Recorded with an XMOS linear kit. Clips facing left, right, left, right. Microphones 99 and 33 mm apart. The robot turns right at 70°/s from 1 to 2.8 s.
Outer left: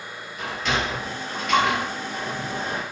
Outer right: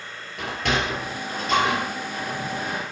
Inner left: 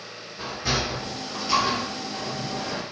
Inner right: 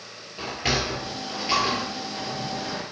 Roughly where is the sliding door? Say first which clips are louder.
Outer right 1 dB, inner right 1 dB; right.